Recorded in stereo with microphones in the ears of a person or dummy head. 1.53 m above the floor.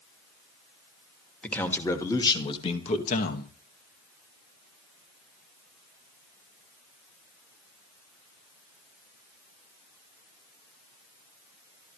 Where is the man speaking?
5° left (ahead or behind), 2.5 m; by 3.5 s 50° left (ahead or behind), 2.0 m.